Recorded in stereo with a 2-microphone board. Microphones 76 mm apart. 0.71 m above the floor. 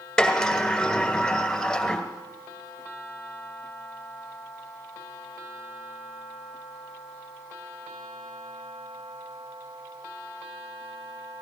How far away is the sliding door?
About 1.7 m.